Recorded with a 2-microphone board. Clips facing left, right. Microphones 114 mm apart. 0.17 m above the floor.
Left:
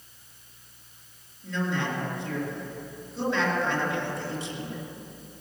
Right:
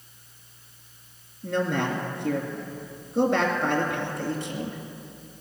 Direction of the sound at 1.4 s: 60° right (ahead or behind).